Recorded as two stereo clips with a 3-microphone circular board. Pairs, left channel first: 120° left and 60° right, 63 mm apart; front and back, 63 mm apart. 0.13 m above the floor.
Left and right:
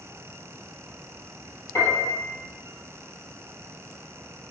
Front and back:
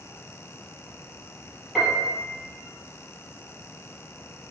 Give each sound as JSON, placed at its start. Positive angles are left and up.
{"t": 1.8, "sound": "a piano", "azimuth_deg": 95, "distance_m": 1.6}